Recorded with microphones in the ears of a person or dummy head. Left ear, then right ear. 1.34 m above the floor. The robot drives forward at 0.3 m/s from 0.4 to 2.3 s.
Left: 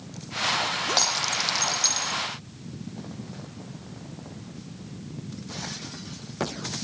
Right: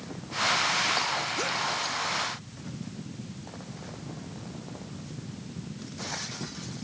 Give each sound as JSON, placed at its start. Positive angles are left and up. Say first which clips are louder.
{"t": 1.0, "sound": "breaking glass", "louder": "left 4 dB", "side_deg": 50}